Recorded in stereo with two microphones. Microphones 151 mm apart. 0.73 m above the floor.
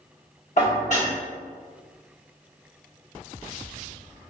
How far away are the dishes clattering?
About 1.1 m.